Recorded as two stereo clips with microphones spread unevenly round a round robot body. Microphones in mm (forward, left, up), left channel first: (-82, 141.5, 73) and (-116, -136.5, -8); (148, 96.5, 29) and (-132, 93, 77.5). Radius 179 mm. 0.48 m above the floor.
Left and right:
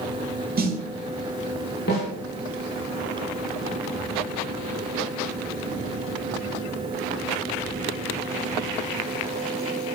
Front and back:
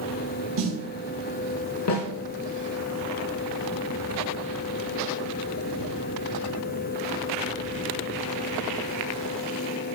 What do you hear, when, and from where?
0.6 s a snare drum: 135° right, 1.8 m
1.9 s a snare drum: 20° left, 3.5 m